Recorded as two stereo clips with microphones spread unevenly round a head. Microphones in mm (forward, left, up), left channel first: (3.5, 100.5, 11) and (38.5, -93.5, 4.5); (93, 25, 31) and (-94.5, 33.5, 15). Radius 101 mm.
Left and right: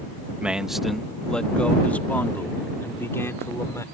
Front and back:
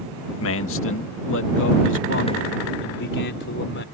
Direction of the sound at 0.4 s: 5° left.